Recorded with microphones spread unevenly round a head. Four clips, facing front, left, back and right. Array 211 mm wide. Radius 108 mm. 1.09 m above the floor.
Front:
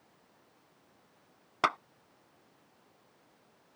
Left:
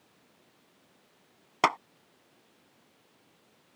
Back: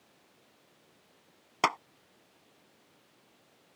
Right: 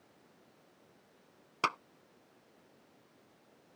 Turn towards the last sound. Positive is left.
turn(degrees=90)